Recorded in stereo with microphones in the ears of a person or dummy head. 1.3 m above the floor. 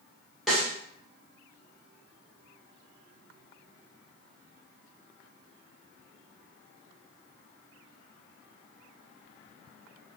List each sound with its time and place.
0.5 s a snare drum: 5° right (ahead or behind), 1.0 m